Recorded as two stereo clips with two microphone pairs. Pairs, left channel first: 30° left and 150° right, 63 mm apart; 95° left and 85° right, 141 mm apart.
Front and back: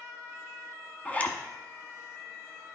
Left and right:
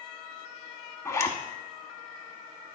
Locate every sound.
1.1 s a zipper: 55° left, 0.9 m